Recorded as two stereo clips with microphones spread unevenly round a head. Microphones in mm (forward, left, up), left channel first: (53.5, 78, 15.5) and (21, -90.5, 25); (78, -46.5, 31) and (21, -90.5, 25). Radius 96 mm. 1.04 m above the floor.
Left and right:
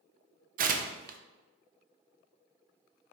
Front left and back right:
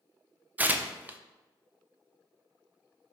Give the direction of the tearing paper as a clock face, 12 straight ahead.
3 o'clock.